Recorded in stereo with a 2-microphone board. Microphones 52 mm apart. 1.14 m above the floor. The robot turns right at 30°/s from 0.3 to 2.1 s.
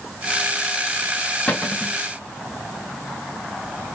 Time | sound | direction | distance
1.5 | a cupboard door | 20° left (ahead or behind) | 0.6 m